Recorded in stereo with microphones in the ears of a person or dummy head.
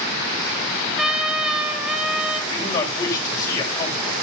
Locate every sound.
1.0 s a trumpet: 5° right (ahead or behind), 2.5 m
2.5 s a man speaking: 25° left (ahead or behind), 7 m